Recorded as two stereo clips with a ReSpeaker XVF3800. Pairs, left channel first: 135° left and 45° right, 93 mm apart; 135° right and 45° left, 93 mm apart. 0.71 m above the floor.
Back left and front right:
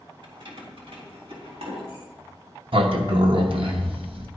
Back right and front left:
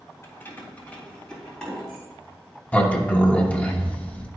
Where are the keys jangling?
75° right, 1.6 m; by 2.0 s 50° right, 4 m.